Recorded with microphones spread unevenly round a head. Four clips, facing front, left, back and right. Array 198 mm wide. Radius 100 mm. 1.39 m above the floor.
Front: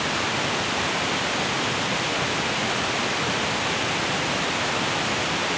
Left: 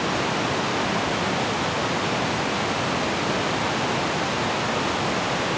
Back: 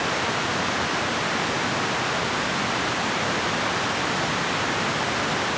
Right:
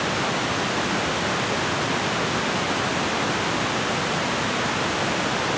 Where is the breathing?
I don't hear breathing.